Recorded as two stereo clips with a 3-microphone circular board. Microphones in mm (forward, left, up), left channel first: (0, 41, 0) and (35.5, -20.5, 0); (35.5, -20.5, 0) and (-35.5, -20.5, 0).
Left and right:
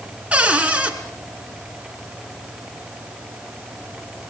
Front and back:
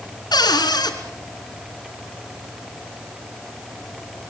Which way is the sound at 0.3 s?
15° left.